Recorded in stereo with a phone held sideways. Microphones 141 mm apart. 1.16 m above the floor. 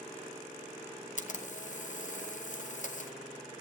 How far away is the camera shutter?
About 0.7 m.